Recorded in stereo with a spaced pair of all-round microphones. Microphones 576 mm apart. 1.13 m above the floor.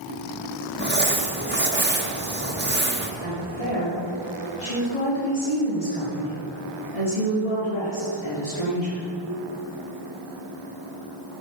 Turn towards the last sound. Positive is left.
turn(degrees=85)